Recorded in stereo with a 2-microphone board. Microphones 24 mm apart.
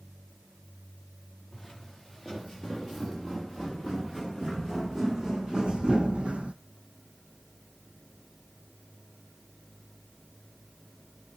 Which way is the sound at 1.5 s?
5° right (ahead or behind).